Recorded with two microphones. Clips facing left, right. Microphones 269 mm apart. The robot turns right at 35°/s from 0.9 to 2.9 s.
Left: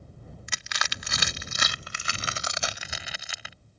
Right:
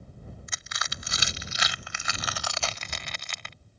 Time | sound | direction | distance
0.5 | crushing | 75° left (ahead or behind) | ?